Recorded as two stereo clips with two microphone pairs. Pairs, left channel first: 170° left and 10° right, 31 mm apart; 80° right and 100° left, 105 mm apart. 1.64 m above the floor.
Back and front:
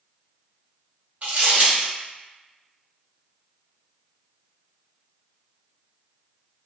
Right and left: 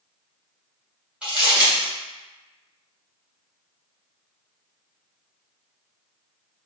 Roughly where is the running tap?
No running tap in this recording.